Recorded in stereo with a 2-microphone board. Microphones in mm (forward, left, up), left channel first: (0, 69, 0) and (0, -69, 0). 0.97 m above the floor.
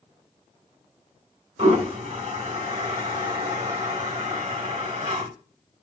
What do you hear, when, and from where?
1.6 s a toilet flushing: 65° right (ahead or behind), 3 m